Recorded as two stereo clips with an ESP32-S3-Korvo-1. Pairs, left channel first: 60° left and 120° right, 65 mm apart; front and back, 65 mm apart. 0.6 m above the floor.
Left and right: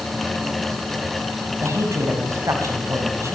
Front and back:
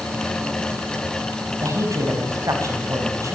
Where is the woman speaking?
155° right, 4.5 m.